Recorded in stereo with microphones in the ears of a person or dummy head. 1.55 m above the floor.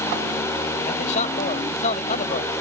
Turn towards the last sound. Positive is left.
turn(degrees=40)  # may be behind; listen again after turning